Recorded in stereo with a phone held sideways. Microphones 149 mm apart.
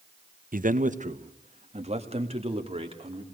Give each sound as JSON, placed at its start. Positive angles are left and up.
{"t": 0.5, "sound": "a man speaking", "side_deg": -65, "distance_m": 1.1}